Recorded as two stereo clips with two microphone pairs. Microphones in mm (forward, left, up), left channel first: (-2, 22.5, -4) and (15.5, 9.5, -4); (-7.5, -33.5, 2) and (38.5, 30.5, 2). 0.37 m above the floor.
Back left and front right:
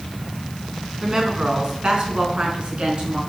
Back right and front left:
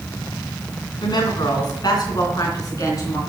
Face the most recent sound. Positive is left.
turn(degrees=-75)